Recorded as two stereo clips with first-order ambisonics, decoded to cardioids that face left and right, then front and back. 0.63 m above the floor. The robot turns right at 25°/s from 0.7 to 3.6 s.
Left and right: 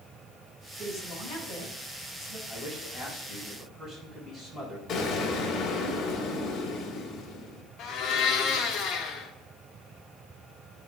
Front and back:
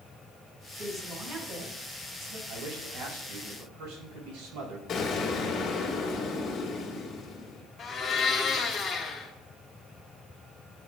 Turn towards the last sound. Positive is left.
turn(degrees=65)